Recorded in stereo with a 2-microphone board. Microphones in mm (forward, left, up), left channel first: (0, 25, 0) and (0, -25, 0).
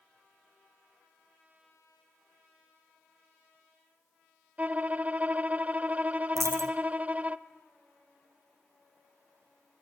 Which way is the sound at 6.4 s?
80° right.